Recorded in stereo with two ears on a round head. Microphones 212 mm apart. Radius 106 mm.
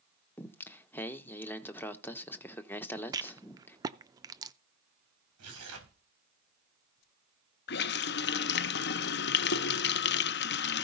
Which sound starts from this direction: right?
Tearing paper, at 5.4 s.